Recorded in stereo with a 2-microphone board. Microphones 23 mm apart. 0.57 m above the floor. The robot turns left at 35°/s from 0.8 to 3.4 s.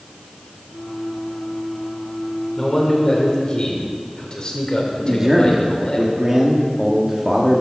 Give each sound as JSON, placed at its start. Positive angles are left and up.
{"t": 2.6, "sound": "a man speaking", "side_deg": 10, "distance_m": 2.0}
{"t": 5.0, "sound": "a man speaking", "side_deg": -15, "distance_m": 1.1}